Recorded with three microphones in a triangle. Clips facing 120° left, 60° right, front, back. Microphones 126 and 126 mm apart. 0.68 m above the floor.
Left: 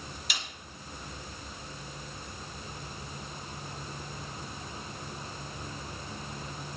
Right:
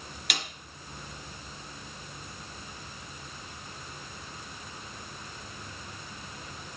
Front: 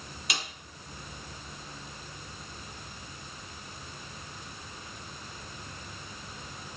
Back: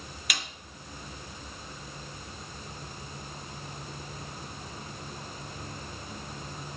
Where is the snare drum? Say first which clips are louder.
Right 5 dB, front 1 dB; 60° right, 1.8 m.